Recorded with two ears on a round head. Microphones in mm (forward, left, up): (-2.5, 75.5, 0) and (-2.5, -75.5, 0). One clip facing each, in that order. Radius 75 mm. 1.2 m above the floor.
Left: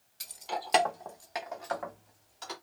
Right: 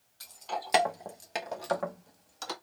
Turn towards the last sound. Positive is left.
turn(degrees=-60)  # may be behind; listen again after turning